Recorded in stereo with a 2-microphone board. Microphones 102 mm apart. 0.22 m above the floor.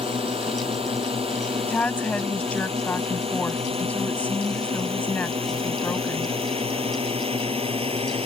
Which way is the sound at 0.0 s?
70° right (ahead or behind).